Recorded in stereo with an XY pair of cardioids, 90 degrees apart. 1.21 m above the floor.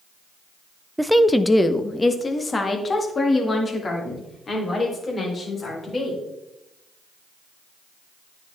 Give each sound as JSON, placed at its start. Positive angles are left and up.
{"t": 1.0, "sound": "a woman speaking", "azimuth_deg": -10, "distance_m": 0.5}